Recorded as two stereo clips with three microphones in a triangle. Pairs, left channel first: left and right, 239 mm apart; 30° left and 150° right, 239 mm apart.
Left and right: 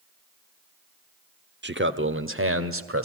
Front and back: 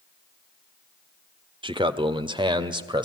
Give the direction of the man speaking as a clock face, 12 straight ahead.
3 o'clock.